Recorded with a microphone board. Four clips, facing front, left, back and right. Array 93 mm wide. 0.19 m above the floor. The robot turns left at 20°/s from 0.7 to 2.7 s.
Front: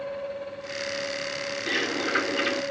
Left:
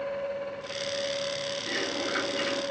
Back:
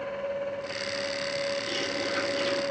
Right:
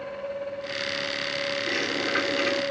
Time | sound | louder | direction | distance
1.7 | a bird | right 2 dB, front 4 dB | 5° right | 1.9 m